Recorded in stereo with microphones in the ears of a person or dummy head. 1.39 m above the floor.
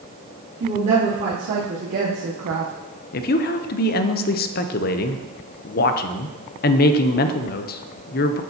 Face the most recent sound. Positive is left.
turn(degrees=45)  # may be behind; listen again after turning